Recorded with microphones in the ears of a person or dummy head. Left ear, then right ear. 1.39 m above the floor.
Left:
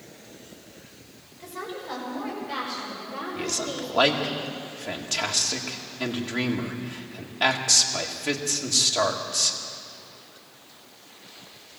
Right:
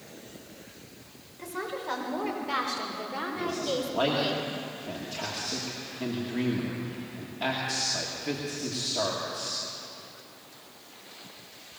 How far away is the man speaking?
About 2 m.